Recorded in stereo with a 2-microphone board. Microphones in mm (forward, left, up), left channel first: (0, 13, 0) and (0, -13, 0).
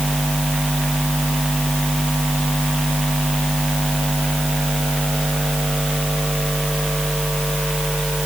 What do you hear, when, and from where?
Only background noise.